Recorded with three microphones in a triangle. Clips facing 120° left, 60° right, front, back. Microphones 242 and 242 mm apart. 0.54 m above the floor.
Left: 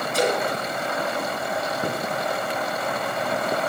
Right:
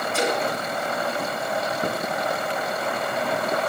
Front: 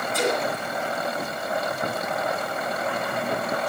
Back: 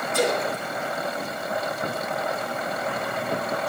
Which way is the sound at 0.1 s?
165° left.